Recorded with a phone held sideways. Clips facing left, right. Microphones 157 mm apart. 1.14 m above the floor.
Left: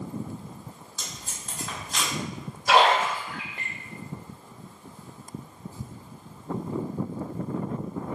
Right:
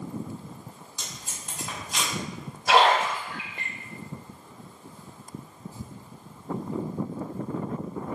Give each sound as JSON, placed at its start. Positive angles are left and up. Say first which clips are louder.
{"t": 1.0, "sound": "tape being pulled", "louder": "even", "side_deg": -15, "distance_m": 1.3}
{"t": 2.7, "sound": "a splash", "louder": "even", "side_deg": -65, "distance_m": 1.7}